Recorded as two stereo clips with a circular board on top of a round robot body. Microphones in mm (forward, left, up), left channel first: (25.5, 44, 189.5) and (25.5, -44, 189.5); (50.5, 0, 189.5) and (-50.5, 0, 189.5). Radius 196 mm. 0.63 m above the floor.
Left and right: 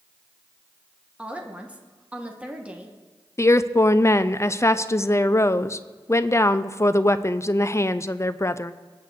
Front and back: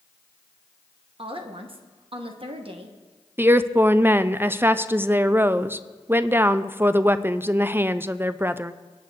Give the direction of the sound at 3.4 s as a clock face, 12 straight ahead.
8 o'clock.